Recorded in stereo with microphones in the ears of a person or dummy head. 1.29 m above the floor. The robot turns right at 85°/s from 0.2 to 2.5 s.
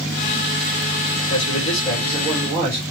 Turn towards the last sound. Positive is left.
turn(degrees=-140)